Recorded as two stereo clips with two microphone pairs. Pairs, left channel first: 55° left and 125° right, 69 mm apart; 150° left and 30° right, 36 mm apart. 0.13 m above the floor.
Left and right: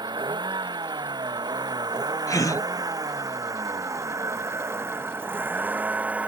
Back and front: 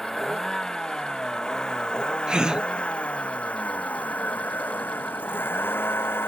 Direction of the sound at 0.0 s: 130° right.